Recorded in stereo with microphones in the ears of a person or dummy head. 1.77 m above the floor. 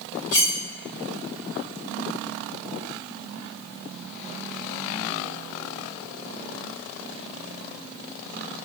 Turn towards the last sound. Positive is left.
turn(degrees=45)  # may be behind; listen again after turning